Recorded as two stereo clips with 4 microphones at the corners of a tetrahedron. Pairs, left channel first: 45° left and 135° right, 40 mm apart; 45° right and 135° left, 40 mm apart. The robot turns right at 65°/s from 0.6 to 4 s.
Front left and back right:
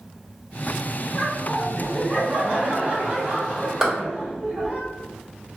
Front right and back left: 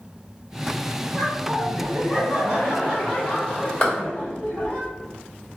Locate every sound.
1.1 s laughter: 90° left, 0.9 m; by 4.8 s 85° right, 0.9 m
3.8 s a clap: 60° right, 1.3 m; by 3.9 s 55° right, 1.3 m